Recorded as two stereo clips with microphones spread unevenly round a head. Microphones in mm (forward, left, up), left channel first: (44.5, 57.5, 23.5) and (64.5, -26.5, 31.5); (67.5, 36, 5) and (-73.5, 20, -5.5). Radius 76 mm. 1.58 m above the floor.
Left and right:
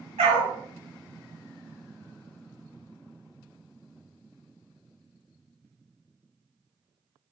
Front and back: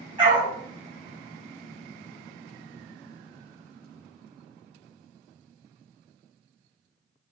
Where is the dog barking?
110° right, 4 m.